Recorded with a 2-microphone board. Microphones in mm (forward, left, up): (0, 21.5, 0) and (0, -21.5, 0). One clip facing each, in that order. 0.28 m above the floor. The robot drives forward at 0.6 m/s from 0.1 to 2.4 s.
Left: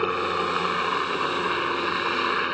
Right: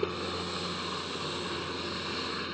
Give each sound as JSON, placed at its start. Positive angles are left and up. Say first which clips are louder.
{"t": 0.0, "sound": "a helicopter", "louder": "left 9 dB", "side_deg": 50}